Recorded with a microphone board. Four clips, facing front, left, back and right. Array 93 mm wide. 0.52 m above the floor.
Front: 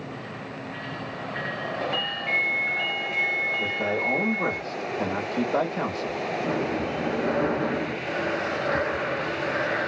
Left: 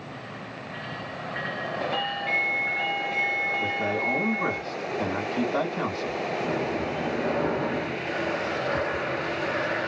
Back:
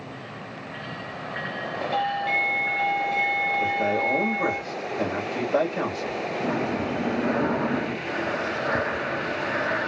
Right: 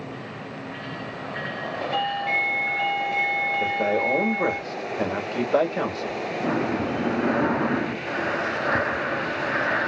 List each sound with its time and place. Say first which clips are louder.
1.9 s a doorbell: right 6 dB, back 3 dB; 15° right, 1.4 m
3.6 s a man speaking: right 4 dB, back 3 dB; 105° right, 1.6 m
6.4 s breathing: right 6 dB, back 1 dB; 100° right, 0.9 m